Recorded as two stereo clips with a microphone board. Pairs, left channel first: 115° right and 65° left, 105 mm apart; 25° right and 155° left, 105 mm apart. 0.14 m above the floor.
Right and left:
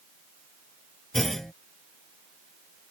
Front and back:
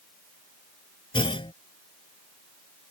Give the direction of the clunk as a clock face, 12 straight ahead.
1 o'clock.